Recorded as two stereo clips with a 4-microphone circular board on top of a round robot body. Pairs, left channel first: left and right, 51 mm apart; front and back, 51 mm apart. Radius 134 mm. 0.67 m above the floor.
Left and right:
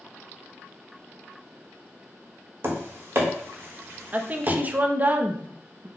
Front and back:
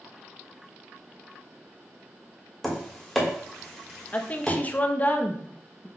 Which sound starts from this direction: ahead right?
A woman speaking, at 4.1 s.